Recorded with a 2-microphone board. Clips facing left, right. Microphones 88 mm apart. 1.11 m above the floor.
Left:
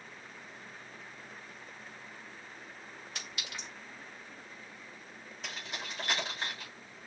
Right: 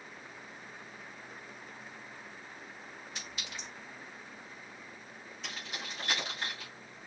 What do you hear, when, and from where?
3.1 s a clink: 70° left (ahead or behind), 3.5 m
5.4 s keys jangling: 50° left (ahead or behind), 4 m